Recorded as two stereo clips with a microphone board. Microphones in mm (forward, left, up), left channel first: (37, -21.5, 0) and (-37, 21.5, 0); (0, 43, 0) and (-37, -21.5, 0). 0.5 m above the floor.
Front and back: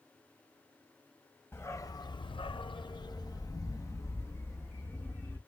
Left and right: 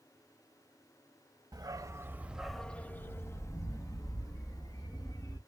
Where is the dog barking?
90° right, 0.7 m; by 5.4 s 35° left, 1.9 m.